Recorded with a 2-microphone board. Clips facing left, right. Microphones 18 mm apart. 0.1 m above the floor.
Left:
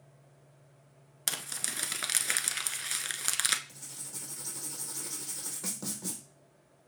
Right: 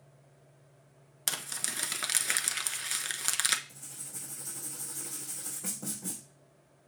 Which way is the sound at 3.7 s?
60° left (ahead or behind).